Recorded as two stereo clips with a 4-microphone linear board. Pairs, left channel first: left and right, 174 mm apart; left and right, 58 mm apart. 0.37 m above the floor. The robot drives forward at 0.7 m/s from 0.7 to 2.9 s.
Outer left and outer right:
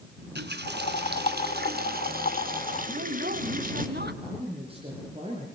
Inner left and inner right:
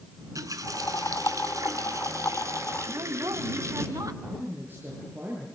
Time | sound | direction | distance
0.2 | a running tap | 75° right (ahead or behind) | 3 m
2.9 | a woman speaking | 70° right (ahead or behind) | 2.5 m
4.2 | a man speaking | 35° right (ahead or behind) | 7.5 m